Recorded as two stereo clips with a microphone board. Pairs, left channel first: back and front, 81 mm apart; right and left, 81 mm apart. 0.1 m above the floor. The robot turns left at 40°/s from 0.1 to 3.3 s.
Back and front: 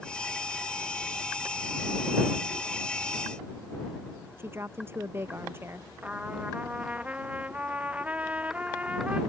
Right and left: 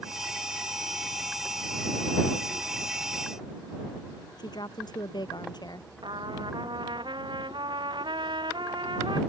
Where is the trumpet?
75° left.